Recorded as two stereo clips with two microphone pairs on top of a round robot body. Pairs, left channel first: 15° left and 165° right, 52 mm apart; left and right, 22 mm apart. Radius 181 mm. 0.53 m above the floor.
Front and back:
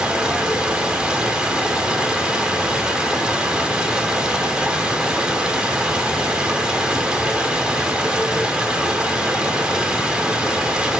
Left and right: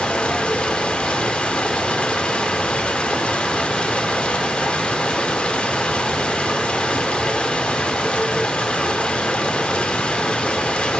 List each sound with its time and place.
0.0 s running water: 120° left, 2.5 m